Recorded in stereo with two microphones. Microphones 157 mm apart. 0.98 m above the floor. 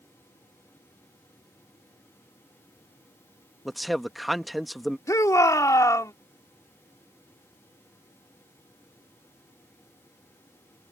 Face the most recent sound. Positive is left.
turn(degrees=20)  # may be behind; listen again after turning